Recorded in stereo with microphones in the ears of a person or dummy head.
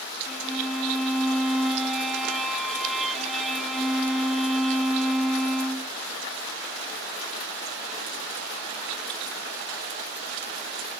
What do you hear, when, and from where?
0.3 s a violin: 5° left (ahead or behind)